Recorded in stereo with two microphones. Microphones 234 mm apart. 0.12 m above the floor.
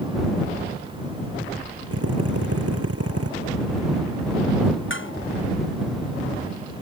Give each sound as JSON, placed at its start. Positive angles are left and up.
{"t": 1.9, "sound": "a drill", "side_deg": -80}
{"t": 4.9, "sound": "dishes clattering", "side_deg": 55}